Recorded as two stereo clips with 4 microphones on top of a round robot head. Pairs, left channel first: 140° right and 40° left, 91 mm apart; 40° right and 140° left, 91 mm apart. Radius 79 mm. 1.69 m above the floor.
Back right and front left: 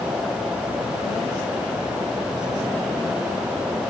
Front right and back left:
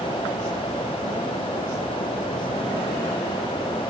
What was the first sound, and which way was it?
Only background noise.